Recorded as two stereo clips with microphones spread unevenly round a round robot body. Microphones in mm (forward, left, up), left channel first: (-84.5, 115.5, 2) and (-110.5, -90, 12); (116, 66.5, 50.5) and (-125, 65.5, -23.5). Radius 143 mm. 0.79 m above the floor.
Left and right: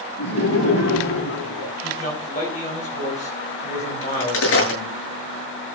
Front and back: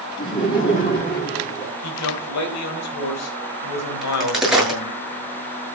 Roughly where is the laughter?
Ahead left.